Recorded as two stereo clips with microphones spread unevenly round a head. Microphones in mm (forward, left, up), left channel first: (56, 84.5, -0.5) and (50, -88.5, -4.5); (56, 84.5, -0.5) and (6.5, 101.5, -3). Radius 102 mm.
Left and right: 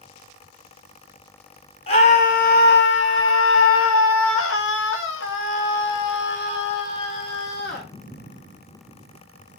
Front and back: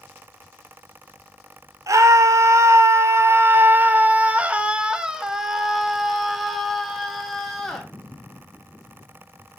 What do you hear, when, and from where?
1.9 s a scream: 150° left, 1.7 m; by 7.9 s 65° left, 3.5 m